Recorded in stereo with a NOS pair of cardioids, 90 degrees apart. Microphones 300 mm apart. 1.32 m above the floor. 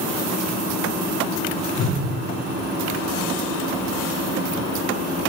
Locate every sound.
1.8 s a whoosh: 60° left, 1.5 m